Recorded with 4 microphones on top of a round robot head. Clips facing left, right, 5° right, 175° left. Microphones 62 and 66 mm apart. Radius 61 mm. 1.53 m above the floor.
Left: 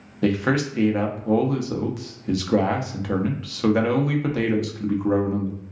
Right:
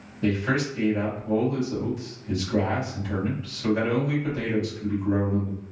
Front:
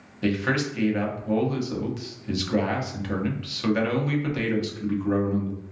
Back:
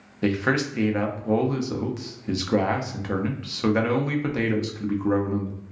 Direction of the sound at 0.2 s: 110° left.